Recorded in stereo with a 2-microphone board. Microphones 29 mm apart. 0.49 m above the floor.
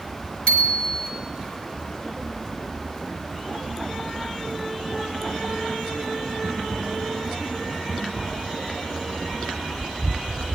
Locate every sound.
0.5 s a bicycle bell: 40° left (ahead or behind), 2 m